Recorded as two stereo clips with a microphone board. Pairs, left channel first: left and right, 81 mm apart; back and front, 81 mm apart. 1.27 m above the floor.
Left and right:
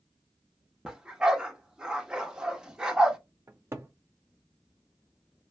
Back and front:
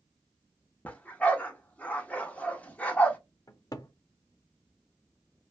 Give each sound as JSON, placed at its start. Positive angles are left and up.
{"t": 0.8, "sound": "a dog barking", "azimuth_deg": -150, "distance_m": 0.6}
{"t": 3.5, "sound": "a cupboard door", "azimuth_deg": -145, "distance_m": 0.5}